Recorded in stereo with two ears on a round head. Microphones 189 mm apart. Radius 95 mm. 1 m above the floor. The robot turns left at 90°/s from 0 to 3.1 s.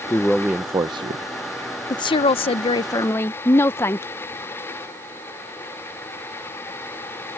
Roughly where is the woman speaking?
Centre.